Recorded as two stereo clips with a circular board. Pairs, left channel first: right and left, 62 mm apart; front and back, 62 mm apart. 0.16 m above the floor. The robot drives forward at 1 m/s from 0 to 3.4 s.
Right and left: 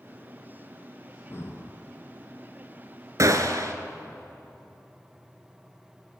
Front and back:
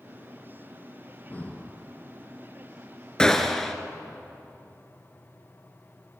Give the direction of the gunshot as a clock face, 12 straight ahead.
9 o'clock.